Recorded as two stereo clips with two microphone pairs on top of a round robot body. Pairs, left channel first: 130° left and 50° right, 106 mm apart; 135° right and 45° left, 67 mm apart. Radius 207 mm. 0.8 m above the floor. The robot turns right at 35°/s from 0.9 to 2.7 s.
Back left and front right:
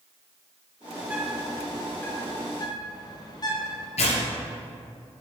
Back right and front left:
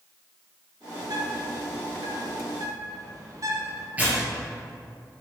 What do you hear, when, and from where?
1.0 s a bird: 25° left, 2.5 m; by 3.9 s 80° left, 2.5 m
4.0 s tearing paper: 115° left, 3 m